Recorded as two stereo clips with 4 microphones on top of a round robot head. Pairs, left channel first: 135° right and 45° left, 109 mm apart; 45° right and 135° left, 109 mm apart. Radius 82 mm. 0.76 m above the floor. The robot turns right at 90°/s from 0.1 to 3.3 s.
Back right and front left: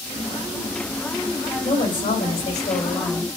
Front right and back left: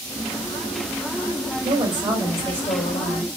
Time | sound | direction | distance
1.6 | a woman speaking | 155° left | 4.5 m